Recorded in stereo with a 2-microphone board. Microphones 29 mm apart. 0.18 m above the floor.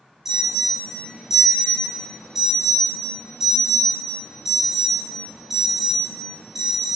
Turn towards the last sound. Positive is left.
turn(degrees=-15)  # may be behind; listen again after turning